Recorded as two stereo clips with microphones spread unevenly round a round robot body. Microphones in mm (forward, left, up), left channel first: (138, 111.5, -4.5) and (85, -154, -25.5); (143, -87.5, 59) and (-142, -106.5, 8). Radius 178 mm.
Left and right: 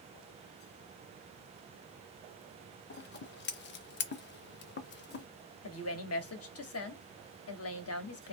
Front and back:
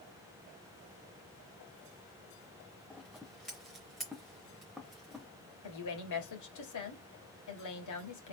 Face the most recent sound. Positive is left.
turn(degrees=45)